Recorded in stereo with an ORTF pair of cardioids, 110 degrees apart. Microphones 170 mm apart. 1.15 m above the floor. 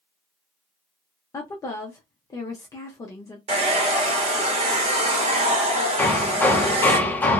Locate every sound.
1.3 s a woman speaking: 20° left, 0.7 m
3.5 s a hair dryer: 40° right, 1.1 m
6.0 s hammering: 10° left, 0.7 m